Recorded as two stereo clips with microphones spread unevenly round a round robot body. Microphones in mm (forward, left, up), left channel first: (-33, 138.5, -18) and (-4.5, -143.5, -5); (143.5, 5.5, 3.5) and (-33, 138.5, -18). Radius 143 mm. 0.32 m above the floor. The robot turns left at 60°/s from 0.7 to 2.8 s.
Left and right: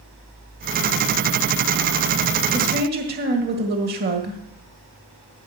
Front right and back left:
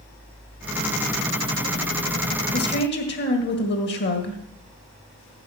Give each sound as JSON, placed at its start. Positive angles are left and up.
{"t": 2.5, "sound": "a woman speaking", "azimuth_deg": -25, "distance_m": 1.8}